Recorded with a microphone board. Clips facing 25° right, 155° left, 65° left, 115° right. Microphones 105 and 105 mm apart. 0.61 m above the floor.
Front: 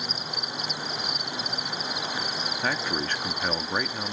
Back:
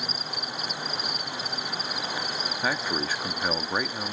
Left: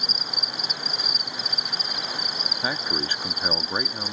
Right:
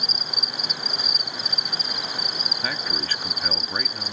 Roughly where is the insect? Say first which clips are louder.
Even, even; right.